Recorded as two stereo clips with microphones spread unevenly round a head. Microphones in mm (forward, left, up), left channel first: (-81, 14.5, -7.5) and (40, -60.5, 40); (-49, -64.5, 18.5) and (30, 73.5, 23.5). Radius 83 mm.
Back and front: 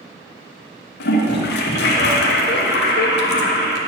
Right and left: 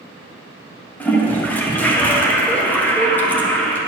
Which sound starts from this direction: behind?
A toilet flushing, at 1.0 s.